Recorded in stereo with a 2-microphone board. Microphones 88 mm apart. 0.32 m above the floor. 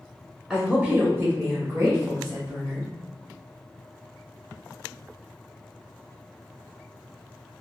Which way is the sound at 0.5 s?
10° right (ahead or behind).